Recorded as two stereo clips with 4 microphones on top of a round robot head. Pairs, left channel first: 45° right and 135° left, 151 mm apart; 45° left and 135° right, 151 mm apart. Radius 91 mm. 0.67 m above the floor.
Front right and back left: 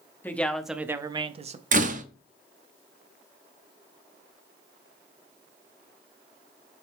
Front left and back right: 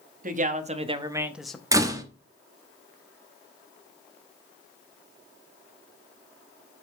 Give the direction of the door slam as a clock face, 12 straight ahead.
7 o'clock.